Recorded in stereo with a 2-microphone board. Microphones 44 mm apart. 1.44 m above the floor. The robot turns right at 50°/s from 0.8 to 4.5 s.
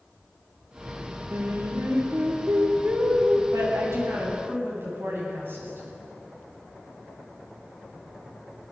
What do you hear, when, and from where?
1.3 s singing: 120° right, 3.5 m; by 3.4 s 15° right, 3.5 m
3.5 s a woman speaking: 105° right, 9 m; by 5.9 s 55° right, 9 m